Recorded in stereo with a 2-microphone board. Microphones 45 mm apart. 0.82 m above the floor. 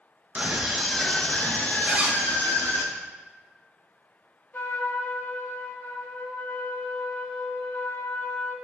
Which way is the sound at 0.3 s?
25° right (ahead or behind).